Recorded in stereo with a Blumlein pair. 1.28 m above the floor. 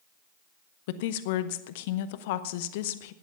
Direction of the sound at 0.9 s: 50° left.